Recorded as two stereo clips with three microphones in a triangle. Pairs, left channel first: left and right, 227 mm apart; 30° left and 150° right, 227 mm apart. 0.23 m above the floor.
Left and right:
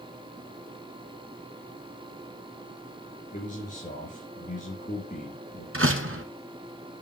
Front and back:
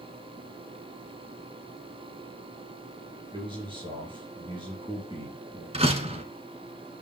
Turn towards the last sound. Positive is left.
turn(degrees=-90)